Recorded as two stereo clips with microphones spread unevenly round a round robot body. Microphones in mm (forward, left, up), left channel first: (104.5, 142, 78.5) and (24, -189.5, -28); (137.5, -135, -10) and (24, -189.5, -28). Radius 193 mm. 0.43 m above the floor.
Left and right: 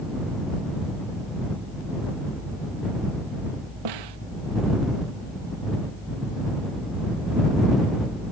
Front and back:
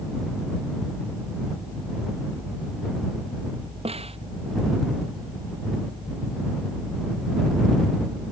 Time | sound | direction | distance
3.9 | a snare drum | 115° right | ?